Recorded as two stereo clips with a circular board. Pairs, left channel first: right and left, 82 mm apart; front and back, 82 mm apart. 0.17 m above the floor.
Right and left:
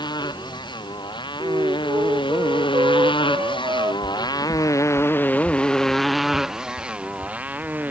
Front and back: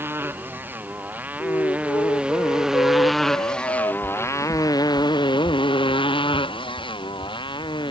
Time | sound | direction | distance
0.0 | a motorcycle | 115° right | ?
1.4 | a flute | 45° left | ?
4.0 | footsteps | straight ahead | ?